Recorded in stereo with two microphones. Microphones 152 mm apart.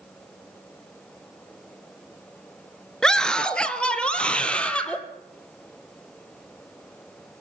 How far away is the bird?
I don't hear a bird.